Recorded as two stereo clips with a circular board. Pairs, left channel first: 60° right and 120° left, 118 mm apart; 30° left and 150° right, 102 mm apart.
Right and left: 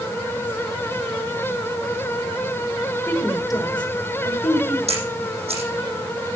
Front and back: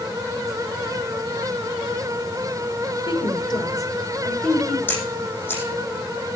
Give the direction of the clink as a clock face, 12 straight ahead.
I don't hear a clink.